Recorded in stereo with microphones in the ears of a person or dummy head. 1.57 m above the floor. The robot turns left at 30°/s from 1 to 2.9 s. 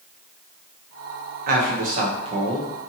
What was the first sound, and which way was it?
A man speaking, 130° right.